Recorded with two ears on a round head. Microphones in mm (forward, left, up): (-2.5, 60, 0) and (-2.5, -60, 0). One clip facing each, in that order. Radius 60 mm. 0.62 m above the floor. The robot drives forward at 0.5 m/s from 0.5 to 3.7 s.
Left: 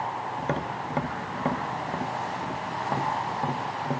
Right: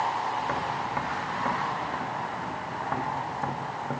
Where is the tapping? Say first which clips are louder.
Right 1 dB; 35° left (ahead or behind), 0.8 m; by 4.0 s 15° left (ahead or behind), 1.8 m.